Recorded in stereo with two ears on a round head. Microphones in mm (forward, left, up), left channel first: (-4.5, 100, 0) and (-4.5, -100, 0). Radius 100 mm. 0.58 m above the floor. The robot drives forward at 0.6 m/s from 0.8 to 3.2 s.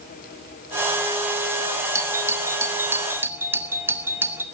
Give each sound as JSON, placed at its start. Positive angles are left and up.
{"t": 1.9, "sound": "a doorbell", "side_deg": -10, "distance_m": 1.5}